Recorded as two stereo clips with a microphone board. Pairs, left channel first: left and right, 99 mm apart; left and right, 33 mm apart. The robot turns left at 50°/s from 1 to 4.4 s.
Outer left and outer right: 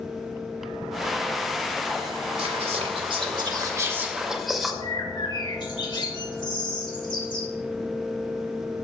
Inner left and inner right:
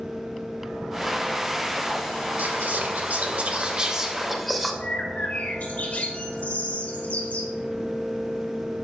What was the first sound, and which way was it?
Whispering, 80° right.